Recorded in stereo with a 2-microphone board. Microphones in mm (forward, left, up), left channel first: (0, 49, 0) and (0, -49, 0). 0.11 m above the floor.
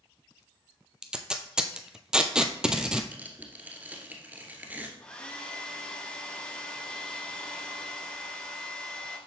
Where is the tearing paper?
20° right (ahead or behind), 1.4 m.